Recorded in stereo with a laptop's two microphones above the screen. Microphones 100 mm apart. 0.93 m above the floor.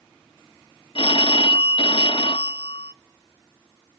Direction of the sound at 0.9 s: 60° left (ahead or behind).